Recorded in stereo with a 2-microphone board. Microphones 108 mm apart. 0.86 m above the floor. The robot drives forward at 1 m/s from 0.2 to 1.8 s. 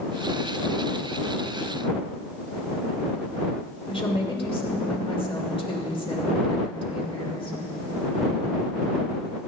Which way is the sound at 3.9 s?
60° left (ahead or behind).